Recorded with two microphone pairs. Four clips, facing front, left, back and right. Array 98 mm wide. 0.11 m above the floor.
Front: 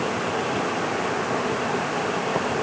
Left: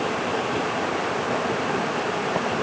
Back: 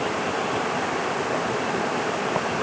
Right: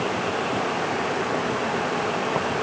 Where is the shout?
I don't hear a shout.